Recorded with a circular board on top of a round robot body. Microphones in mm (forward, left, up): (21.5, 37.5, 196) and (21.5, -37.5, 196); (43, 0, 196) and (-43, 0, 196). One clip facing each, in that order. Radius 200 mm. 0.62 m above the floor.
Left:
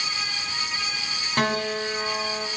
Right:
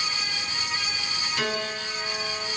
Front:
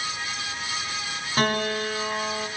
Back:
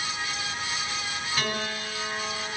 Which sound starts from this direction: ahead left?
A piano, at 1.4 s.